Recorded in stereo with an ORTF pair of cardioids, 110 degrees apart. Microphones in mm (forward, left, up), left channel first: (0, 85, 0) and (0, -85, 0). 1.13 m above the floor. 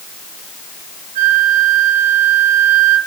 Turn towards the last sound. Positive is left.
turn(degrees=-60)